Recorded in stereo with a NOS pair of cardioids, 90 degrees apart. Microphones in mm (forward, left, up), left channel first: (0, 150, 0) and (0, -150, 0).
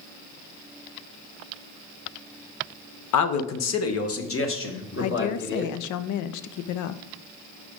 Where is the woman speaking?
70° left, 0.5 m.